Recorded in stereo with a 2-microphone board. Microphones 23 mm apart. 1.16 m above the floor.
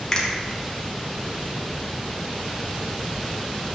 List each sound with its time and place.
0.1 s a finger snap: 30° left (ahead or behind), 1.1 m